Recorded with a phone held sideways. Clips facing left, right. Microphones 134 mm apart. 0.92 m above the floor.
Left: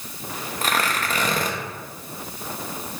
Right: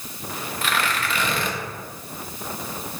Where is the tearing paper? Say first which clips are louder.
Left 1 dB; 40° left (ahead or behind), 0.9 m.